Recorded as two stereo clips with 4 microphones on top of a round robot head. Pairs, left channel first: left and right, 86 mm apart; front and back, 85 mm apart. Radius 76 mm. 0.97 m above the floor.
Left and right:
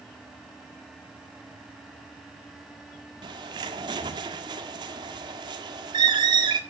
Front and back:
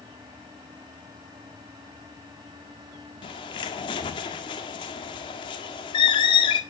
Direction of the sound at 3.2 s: 40° right.